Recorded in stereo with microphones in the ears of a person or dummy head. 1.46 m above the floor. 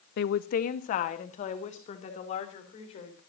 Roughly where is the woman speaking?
Left.